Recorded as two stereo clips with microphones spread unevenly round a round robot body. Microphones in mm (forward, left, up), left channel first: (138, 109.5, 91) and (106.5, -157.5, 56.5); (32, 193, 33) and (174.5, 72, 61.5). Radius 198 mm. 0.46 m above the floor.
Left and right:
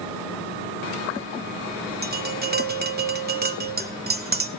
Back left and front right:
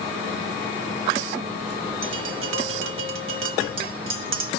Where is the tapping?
40° right, 1.2 m.